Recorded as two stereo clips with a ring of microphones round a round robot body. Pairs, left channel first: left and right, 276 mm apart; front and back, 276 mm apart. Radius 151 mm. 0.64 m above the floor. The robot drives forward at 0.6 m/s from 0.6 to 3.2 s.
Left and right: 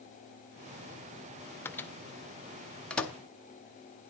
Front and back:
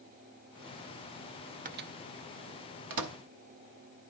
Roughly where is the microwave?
Behind.